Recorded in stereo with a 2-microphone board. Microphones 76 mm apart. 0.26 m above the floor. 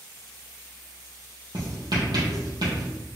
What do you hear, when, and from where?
1.5 s writing: 65° right (ahead or behind), 3 m